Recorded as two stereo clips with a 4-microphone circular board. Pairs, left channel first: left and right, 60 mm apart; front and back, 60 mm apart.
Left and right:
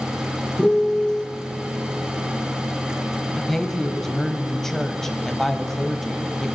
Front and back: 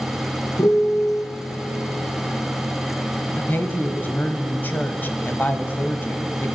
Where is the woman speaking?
10° left, 1.3 m.